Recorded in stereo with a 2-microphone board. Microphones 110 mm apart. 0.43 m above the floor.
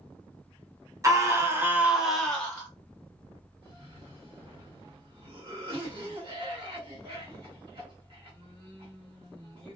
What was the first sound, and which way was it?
A scream, 30° right (ahead or behind).